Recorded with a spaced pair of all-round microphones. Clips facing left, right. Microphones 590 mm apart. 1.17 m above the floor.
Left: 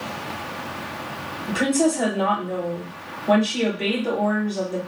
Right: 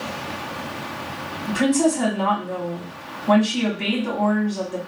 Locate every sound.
1.5 s a woman speaking: 30° right (ahead or behind), 1.3 m